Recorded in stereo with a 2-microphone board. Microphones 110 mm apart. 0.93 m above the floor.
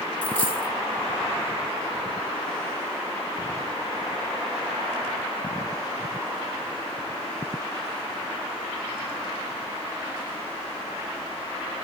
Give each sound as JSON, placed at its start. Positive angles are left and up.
{"t": 0.2, "sound": "a dropped coin", "side_deg": 10, "distance_m": 0.6}